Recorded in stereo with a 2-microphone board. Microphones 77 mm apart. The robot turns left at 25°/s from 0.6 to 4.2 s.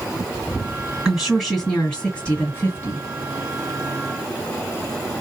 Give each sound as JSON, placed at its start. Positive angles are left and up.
{"t": 1.1, "sound": "a woman speaking", "azimuth_deg": -165, "distance_m": 1.9}